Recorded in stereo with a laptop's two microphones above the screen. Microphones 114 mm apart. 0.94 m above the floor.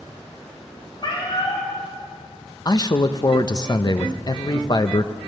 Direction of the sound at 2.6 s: 35° left (ahead or behind).